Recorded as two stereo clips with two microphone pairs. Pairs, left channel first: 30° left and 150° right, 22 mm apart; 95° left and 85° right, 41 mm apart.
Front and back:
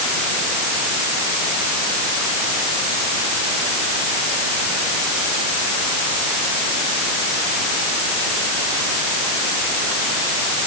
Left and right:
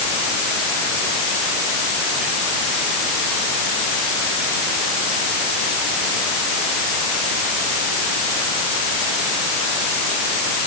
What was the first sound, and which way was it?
Only background noise.